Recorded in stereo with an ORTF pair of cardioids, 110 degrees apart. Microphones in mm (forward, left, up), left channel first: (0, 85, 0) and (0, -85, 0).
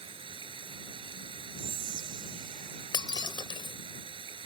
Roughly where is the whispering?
Ahead right.